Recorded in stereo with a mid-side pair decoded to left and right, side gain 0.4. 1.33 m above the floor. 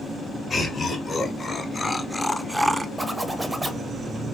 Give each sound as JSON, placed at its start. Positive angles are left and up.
{"t": 0.5, "sound": "laughter", "azimuth_deg": 45, "distance_m": 1.9}
{"t": 3.0, "sound": "a zipper", "azimuth_deg": -20, "distance_m": 0.6}